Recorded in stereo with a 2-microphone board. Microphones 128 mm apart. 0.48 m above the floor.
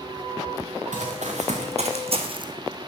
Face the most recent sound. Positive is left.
turn(degrees=-35)  # may be behind; listen again after turning